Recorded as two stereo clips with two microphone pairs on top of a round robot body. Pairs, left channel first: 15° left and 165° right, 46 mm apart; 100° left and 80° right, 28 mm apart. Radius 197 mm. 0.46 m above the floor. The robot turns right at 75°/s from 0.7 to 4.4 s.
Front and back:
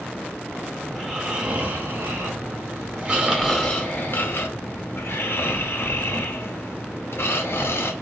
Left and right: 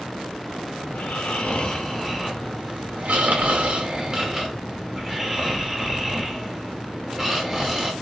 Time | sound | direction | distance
0.9 | snoring | 90° left | 0.9 m